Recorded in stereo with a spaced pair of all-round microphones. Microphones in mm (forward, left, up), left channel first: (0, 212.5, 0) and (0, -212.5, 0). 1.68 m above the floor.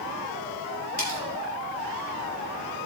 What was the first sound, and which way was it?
Cutlery clinking, 25° left (ahead or behind).